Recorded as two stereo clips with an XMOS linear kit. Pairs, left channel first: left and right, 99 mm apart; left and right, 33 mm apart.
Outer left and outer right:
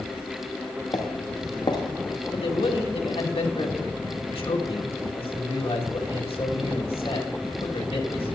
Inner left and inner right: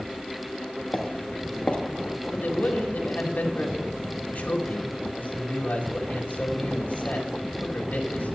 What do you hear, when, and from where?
0.9 s footsteps: 45° left (ahead or behind), 1.4 m
2.3 s a man speaking: 70° left (ahead or behind), 1.9 m